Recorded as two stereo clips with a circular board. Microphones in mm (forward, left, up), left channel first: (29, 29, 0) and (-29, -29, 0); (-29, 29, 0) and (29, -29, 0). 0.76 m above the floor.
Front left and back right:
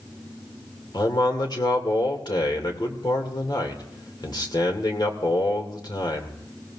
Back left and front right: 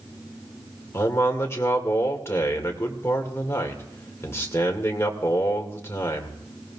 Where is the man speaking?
75° left, 2.5 m.